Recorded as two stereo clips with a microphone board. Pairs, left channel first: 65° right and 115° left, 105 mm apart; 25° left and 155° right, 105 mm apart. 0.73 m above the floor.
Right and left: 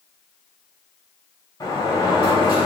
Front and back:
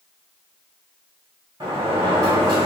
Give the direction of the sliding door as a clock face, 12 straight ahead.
4 o'clock.